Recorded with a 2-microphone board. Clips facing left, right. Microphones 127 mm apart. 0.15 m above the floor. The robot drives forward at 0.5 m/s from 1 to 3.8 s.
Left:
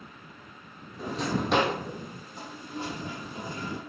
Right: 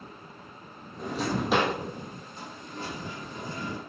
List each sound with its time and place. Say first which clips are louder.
1.0 s a drawer: even; 5° right (ahead or behind), 2 m
2.3 s a toilet flushing: left 4 dB; 15° left (ahead or behind), 3 m